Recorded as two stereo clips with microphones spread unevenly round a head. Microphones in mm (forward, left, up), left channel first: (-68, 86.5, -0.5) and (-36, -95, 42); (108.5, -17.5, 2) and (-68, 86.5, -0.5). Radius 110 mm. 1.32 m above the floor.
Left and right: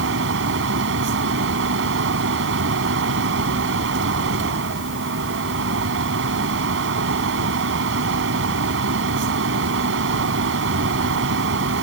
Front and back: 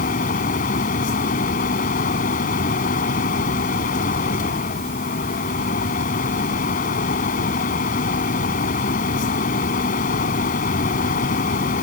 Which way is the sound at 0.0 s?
85° right.